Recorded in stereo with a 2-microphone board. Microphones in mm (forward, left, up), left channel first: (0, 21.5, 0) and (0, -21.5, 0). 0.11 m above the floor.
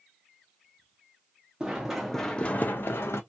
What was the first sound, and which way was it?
Running footsteps, 20° right (ahead or behind).